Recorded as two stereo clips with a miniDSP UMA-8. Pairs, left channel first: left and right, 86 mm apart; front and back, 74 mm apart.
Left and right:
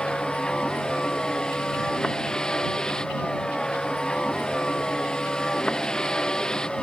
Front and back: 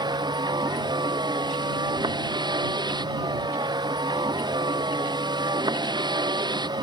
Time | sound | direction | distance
0.0 | a vehicle | 170° left | ?